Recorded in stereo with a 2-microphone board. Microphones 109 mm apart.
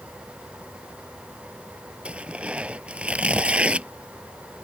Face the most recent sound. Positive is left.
turn(degrees=-10)  # may be behind; listen again after turning